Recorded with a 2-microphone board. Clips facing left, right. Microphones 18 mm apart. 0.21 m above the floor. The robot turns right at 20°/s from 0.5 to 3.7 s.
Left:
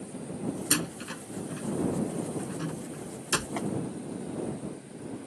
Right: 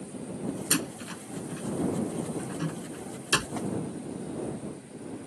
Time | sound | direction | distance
0.7 | a door slam | 20° left (ahead or behind) | ?
3.6 | tapping | 35° left (ahead or behind) | ?